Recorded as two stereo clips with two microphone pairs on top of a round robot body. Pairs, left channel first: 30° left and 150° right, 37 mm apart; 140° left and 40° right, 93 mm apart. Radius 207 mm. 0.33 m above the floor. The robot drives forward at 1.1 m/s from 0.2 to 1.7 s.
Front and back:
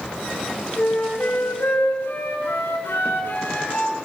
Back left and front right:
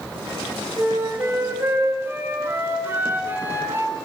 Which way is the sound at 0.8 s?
25° left.